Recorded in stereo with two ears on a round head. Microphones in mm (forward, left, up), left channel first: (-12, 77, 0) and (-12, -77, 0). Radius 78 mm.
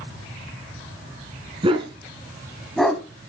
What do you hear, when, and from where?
1.6 s a dog barking: 35° right (ahead or behind), 2.5 m; by 3.0 s 10° left (ahead or behind), 1.6 m